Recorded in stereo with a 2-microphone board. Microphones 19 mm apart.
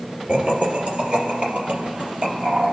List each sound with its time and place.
0.3 s laughter: 55° right (ahead or behind), 3 m; by 2.7 s 70° right (ahead or behind), 4.5 m